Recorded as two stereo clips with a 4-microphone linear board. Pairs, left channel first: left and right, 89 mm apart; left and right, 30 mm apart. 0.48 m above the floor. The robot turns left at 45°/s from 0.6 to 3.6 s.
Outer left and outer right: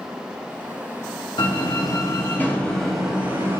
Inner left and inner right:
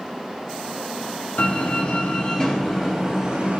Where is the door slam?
65° left, 2.5 m; by 3.6 s 35° right, 2.5 m.